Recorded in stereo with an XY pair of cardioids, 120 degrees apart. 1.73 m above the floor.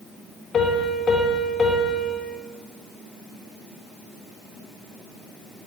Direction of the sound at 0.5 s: 35° left.